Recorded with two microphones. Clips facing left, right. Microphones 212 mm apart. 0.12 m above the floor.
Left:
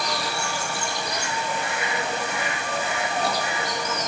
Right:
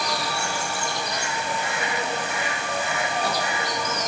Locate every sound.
Only background noise.